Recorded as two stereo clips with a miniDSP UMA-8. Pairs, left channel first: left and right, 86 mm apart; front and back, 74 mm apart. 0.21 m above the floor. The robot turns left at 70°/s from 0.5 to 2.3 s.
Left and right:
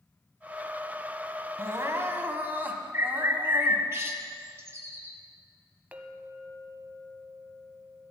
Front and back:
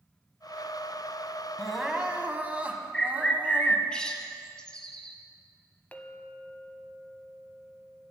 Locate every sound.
1.6 s crying: 80° right, 1.2 m; by 3.9 s 135° right, 1.2 m
2.9 s a bird: 70° right, 1.3 m
5.9 s a clink: 45° right, 0.8 m